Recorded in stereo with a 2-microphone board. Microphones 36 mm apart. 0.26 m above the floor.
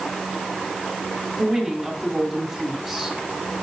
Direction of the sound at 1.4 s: 5° right (ahead or behind).